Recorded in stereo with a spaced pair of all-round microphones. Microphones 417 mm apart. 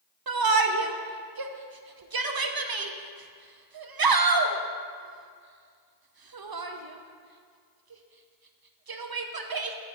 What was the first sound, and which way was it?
A shout, 60° right (ahead or behind).